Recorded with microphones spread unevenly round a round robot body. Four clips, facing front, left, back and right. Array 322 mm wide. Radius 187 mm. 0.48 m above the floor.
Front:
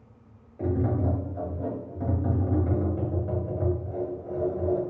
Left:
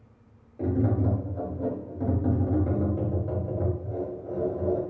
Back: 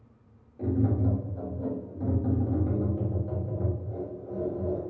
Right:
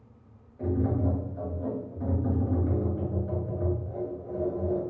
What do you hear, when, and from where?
0.6 s tapping: 55° left, 2.0 m